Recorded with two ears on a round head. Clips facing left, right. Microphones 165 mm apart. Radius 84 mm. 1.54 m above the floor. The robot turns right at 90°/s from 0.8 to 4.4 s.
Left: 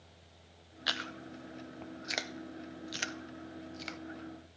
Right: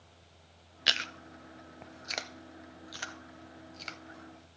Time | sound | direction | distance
0.9 | chewing | 25° right (ahead or behind) | 0.5 m